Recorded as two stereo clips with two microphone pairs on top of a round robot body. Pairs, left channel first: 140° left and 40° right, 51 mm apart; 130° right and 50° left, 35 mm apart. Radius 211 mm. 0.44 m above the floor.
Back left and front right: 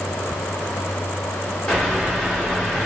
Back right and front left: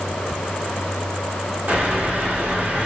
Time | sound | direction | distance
1.7 | a bird | 70° left | 2.5 m